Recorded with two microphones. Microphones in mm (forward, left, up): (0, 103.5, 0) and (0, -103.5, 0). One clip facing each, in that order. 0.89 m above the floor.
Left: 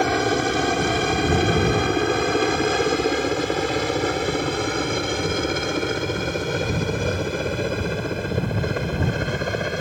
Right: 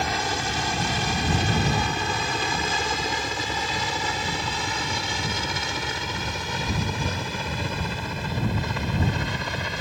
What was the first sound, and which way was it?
A helicopter, 60° left (ahead or behind).